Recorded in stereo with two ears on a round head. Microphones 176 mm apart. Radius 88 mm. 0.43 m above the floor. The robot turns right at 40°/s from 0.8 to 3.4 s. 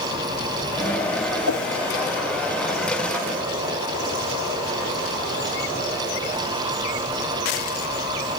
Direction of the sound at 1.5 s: 90° left.